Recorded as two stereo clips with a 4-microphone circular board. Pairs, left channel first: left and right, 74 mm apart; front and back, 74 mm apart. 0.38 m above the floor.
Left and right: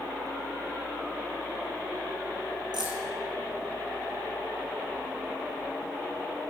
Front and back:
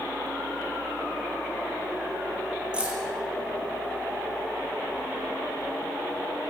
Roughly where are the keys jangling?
Right.